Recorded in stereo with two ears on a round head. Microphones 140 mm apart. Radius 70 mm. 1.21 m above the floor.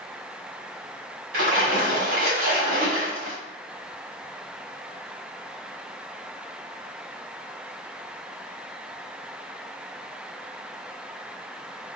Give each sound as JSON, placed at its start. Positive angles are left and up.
{"t": 1.3, "sound": "a splash", "side_deg": -60, "distance_m": 1.4}